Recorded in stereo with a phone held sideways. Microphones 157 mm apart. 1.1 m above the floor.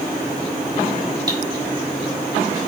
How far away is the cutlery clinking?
About 2.5 m.